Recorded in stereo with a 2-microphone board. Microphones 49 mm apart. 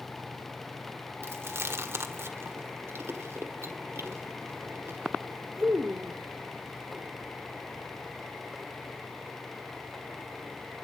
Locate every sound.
1.2 s chewing: 65° right (ahead or behind), 1.5 m